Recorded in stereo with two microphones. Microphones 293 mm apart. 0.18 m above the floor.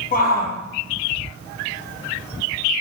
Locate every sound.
0.1 s a shout: 30° left (ahead or behind), 4 m